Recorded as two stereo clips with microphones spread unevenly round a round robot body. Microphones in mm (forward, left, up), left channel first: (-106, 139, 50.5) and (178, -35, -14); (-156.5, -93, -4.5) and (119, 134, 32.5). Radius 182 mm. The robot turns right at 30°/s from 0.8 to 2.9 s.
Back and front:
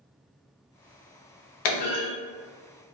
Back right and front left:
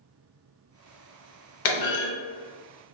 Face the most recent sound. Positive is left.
turn(degrees=-155)